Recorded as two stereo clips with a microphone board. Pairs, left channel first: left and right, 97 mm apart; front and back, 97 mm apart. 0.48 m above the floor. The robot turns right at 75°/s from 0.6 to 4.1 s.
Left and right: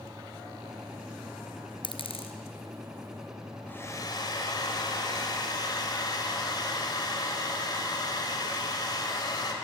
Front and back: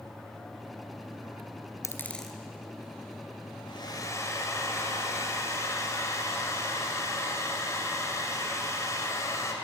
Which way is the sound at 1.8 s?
55° left.